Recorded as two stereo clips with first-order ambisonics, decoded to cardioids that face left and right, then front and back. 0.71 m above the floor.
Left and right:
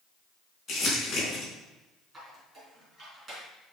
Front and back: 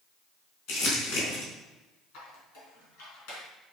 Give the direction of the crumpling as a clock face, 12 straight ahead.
11 o'clock.